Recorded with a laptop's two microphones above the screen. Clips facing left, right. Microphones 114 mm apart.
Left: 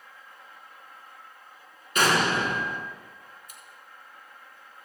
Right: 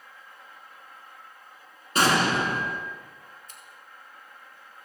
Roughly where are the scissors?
Centre.